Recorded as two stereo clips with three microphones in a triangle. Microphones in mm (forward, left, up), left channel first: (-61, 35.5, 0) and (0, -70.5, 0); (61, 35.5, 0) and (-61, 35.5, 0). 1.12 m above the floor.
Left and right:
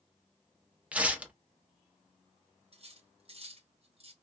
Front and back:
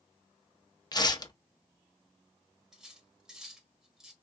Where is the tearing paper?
10° left, 0.6 m.